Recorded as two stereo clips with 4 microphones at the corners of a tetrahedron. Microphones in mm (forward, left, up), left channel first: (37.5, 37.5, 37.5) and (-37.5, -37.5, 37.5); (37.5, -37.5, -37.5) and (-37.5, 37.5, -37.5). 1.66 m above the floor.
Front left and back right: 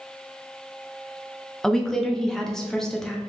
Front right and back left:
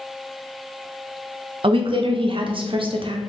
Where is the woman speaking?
130° left, 0.6 m.